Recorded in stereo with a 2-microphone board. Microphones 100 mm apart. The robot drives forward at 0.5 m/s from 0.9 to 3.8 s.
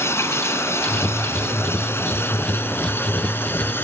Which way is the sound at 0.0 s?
30° left (ahead or behind).